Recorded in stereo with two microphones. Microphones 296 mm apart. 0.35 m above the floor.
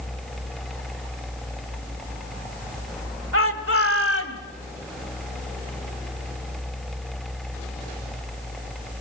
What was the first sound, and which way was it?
A shout, 45° left (ahead or behind).